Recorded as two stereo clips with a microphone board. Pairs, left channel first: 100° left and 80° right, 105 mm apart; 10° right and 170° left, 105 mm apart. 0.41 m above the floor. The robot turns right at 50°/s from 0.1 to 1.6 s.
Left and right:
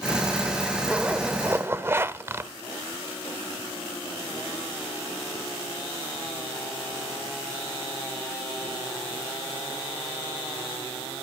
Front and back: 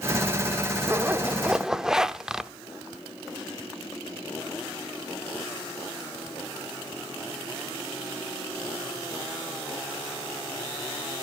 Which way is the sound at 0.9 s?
145° right.